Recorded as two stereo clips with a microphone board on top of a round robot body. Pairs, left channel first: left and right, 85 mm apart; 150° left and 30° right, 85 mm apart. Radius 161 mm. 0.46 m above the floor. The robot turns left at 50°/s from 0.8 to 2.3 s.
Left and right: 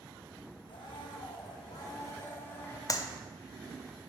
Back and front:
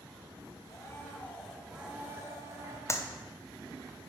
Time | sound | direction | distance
0.7 | a blender | 100° left | 2 m
2.9 | a clap | 110° left | 0.9 m